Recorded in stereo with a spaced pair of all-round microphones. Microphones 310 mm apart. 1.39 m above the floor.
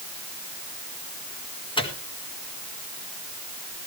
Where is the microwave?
15° left (ahead or behind), 2.0 m.